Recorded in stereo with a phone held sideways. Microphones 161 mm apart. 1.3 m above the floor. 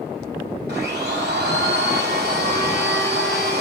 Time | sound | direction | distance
0.7 | a blender | 80° right | 6.5 m